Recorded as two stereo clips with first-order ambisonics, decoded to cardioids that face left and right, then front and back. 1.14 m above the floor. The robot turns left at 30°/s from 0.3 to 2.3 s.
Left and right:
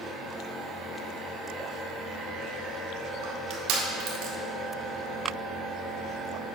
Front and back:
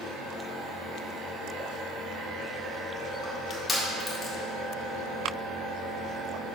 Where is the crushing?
80° right, 1.9 m.